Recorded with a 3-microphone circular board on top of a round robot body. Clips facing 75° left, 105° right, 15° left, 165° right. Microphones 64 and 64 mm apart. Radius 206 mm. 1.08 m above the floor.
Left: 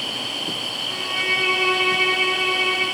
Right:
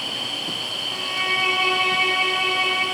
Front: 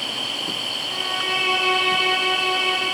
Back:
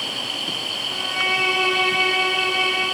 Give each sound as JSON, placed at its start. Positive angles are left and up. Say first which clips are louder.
{"t": 0.9, "sound": "a violin", "louder": "left 1 dB, back 2 dB", "azimuth_deg": 165, "distance_m": 4.0}